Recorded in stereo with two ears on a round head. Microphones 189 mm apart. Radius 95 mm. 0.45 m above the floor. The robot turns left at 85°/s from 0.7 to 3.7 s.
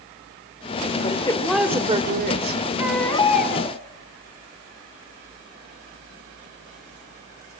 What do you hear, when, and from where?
1.0 s a woman speaking: 45° left, 1.6 m; by 2.7 s 95° right, 1.6 m
2.8 s a baby crying: 165° right, 2 m; by 3.8 s 115° left, 2 m